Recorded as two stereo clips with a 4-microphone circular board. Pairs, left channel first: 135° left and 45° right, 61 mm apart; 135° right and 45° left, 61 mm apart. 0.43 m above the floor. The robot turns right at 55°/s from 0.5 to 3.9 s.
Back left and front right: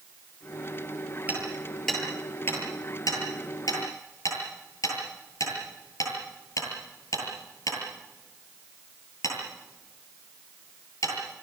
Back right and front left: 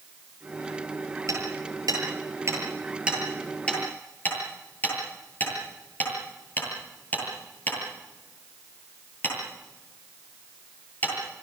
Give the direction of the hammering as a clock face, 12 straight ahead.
11 o'clock.